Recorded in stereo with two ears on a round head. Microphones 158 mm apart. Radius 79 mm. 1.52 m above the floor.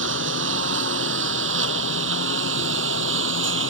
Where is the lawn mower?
85° right; by 3.7 s 80° right.